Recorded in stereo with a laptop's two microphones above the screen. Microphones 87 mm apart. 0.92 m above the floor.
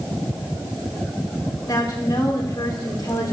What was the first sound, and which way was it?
A woman speaking, 50° left (ahead or behind).